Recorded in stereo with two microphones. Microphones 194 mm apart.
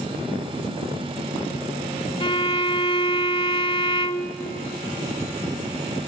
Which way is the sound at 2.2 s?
25° left (ahead or behind).